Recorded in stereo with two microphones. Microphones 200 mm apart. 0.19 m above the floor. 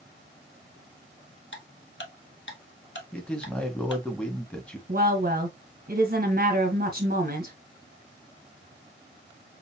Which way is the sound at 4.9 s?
45° right (ahead or behind).